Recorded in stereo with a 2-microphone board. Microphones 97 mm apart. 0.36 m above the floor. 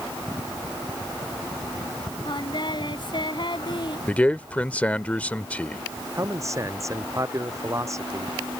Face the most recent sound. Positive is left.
turn(degrees=-30)  # may be behind; listen again after turning